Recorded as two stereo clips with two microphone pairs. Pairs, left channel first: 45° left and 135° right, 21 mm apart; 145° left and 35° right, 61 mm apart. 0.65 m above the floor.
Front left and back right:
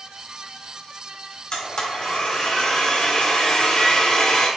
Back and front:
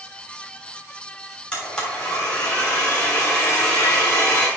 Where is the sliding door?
I don't hear a sliding door.